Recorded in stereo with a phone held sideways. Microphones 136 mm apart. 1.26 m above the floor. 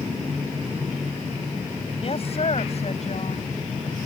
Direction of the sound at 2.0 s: 45° left (ahead or behind).